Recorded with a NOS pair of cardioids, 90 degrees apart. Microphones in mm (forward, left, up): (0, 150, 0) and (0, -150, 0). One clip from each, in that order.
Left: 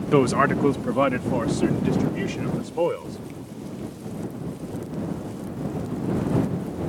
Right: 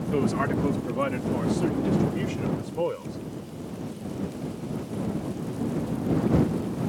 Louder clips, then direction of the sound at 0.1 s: Left 7 dB; 65° left.